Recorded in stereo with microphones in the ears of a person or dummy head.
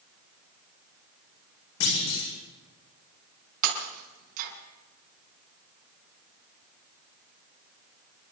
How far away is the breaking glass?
About 5.5 m.